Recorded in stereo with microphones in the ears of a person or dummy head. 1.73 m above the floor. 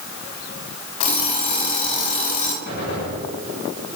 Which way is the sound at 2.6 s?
65° left (ahead or behind).